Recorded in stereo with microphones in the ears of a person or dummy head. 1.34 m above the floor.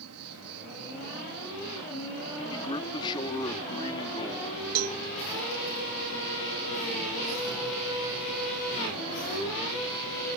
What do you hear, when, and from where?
0.0 s an insect: 75° right (ahead or behind)
2.5 s a man speaking: 25° left (ahead or behind)
4.8 s a cowbell: 80° right